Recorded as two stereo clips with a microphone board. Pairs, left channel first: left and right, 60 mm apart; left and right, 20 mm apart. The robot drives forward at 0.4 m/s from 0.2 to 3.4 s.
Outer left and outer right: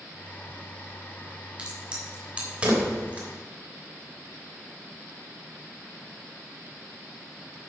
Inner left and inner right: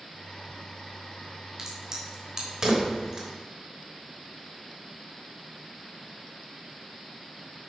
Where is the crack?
20° right (ahead or behind), 4 m; by 3.3 s 25° right (ahead or behind), 3 m.